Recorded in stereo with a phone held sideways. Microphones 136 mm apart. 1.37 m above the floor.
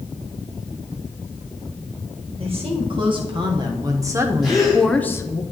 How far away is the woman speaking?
About 1.9 m.